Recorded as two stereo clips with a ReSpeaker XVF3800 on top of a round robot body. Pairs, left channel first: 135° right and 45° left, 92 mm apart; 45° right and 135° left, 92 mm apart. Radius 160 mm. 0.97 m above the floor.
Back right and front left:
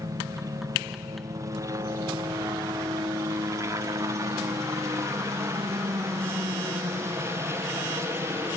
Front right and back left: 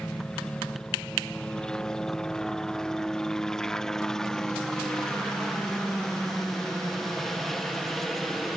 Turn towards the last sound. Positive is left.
turn(degrees=40)